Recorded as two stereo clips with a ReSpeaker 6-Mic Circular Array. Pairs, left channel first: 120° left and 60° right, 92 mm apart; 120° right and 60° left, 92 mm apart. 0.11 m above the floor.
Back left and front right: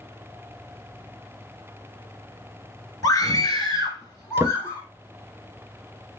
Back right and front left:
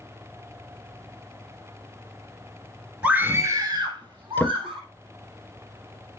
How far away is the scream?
About 1.5 m.